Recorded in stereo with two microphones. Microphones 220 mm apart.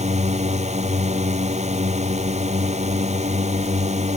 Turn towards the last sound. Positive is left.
turn(degrees=-30)  # may be behind; listen again after turning